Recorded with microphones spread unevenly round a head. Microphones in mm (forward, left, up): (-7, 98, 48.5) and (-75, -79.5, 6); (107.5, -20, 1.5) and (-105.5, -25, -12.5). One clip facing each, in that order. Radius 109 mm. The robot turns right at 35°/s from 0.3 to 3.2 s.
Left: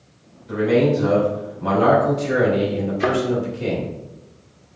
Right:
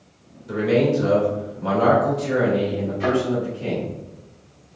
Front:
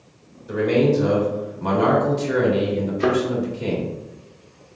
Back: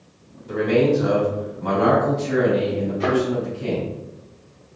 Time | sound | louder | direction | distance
0.5 | a man speaking | left 2 dB, even | 80° right | 2 m
3.0 | a thud | even, front 1 dB | 50° left | 1.2 m